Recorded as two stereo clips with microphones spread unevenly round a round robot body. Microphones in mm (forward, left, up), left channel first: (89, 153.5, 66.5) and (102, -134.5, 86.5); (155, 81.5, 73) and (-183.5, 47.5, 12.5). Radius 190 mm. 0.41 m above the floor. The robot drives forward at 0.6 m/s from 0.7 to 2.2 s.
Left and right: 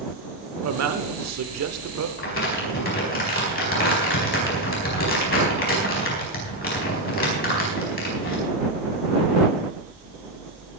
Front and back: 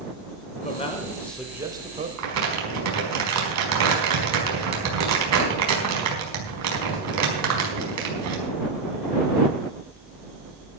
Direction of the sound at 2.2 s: 150° left.